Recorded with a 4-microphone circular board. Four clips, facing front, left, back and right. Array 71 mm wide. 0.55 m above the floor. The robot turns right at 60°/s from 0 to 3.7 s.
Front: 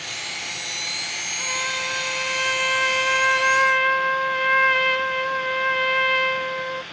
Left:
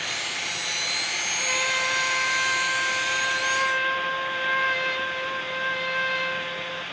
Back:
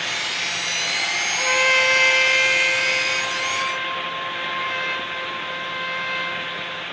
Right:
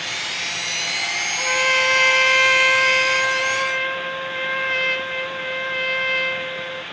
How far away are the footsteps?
No footsteps in this recording.